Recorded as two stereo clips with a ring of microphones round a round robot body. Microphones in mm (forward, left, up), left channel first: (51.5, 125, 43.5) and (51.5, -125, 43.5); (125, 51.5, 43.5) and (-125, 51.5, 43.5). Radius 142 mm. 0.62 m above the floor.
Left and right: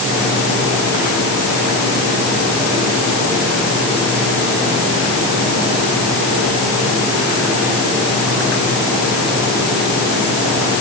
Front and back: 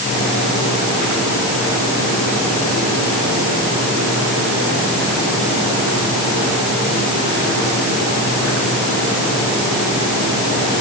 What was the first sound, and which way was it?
Only background noise.